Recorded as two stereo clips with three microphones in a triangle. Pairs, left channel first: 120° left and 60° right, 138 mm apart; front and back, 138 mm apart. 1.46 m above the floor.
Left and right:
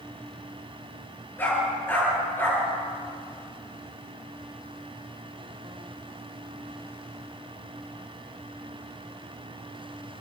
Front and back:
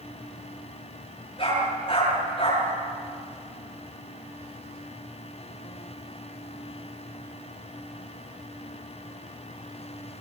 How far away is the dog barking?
About 10 m.